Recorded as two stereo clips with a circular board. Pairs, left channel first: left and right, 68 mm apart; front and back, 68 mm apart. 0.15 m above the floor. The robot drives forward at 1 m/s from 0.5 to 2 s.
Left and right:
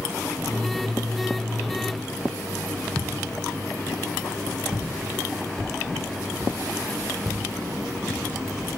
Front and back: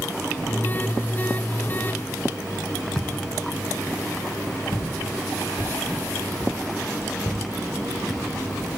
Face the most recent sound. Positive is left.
turn(degrees=0)